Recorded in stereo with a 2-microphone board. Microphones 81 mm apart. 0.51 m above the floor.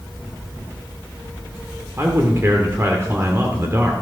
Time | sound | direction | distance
2.0 | a man speaking | 35° right (ahead or behind) | 1.2 m